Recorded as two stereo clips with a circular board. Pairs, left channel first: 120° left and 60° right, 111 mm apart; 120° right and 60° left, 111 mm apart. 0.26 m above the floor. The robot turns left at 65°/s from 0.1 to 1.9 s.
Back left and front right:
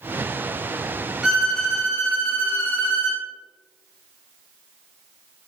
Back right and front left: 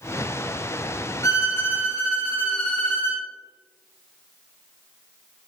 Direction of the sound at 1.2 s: 140° right.